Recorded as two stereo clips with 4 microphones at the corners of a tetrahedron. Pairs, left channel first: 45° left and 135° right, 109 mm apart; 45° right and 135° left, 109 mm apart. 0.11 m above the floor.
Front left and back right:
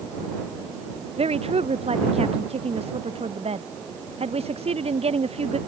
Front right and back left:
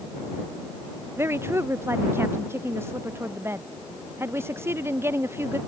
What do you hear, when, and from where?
1.2 s a woman speaking: 155° right